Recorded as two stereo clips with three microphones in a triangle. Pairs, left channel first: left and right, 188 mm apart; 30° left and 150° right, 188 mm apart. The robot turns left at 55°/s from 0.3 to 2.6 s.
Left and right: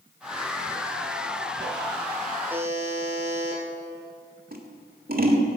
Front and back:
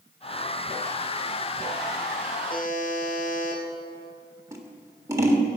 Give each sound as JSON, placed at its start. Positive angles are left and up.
{"t": 2.5, "sound": "a buzzer", "azimuth_deg": -5, "distance_m": 3.5}
{"t": 4.5, "sound": "scissors", "azimuth_deg": -80, "distance_m": 1.5}